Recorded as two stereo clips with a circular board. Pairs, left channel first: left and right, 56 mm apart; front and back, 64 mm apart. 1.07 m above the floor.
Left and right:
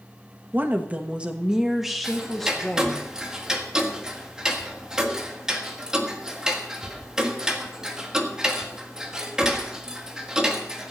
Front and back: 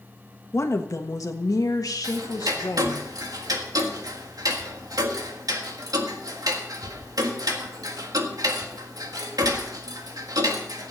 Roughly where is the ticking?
Behind.